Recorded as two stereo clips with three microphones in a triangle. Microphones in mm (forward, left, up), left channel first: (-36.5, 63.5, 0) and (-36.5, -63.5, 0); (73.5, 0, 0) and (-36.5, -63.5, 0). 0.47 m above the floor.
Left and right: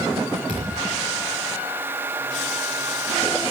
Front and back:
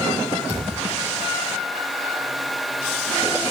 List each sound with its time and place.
0.5 s a thud: 80° left, 8 m